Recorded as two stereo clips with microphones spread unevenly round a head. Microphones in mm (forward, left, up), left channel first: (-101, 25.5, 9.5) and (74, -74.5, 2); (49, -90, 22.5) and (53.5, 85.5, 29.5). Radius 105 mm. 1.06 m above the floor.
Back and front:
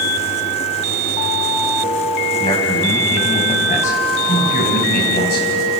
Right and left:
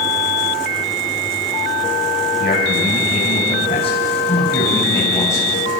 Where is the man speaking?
145° right, 6 m; by 5.5 s 170° right, 6 m.